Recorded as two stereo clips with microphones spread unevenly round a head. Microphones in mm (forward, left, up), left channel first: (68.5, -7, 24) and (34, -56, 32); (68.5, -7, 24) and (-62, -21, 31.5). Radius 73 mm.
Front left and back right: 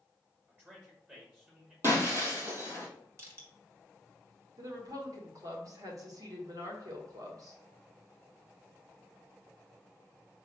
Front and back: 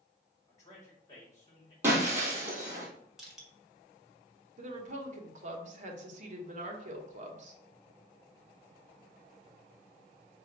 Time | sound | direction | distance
0.5 | a man speaking | 55° right | 1.9 m
1.8 | breaking glass | 105° right | 1.4 m
3.2 | crushing | 85° right | 1.7 m
4.6 | a woman speaking | 150° right | 1.0 m